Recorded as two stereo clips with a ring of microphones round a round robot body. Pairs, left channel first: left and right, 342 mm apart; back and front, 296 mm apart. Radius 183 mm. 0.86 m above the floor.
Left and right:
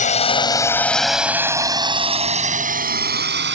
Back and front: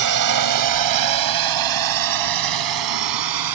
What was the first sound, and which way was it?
A drone, 20° left.